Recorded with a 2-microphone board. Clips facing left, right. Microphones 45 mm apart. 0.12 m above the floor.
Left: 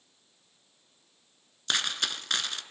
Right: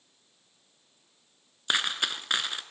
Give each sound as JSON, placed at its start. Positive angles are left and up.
{"t": 1.7, "sound": "a dropped coin", "side_deg": -15, "distance_m": 0.7}